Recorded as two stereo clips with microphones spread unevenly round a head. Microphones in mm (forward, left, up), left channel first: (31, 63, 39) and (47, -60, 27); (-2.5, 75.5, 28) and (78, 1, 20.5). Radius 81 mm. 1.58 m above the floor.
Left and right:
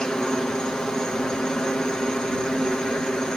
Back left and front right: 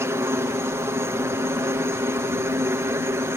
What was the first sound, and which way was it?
A helicopter, 10° left.